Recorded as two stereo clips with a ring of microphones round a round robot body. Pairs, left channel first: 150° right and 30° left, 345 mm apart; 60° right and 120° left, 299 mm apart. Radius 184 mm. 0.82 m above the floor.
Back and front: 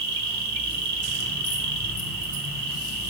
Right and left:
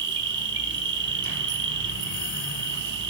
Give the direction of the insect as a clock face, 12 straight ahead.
10 o'clock.